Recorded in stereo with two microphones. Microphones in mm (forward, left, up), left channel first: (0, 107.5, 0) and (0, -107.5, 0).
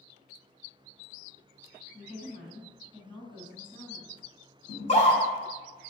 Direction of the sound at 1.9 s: 20° left (ahead or behind).